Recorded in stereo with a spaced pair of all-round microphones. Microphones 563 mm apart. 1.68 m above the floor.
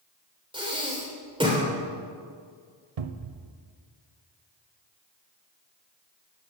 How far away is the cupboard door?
About 0.8 m.